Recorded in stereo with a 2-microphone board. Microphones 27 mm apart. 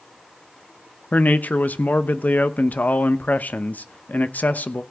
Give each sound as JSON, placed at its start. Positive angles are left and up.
{"t": 1.1, "sound": "a man speaking", "side_deg": 90, "distance_m": 0.8}